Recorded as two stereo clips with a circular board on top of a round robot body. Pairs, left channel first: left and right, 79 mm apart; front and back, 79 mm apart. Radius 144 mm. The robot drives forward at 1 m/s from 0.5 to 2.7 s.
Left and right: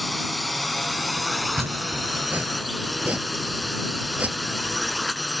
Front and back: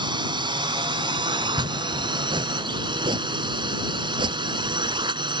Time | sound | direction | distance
0.0 | a drone | straight behind | ?
1.4 | chopping | 145° right | ?